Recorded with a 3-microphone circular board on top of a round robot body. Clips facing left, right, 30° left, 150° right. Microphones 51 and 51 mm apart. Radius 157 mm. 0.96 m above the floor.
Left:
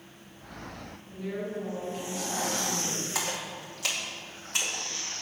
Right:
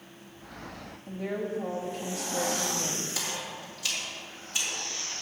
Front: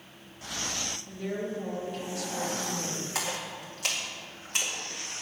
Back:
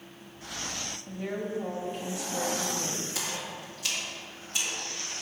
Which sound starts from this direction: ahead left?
A splash, at 3.1 s.